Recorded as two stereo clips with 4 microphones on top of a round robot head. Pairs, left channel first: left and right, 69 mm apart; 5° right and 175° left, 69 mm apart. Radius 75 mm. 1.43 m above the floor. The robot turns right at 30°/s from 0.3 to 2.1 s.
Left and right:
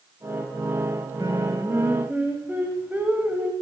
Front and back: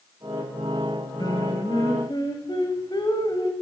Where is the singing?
45° right, 1.4 m; by 3.5 s 20° right, 1.4 m.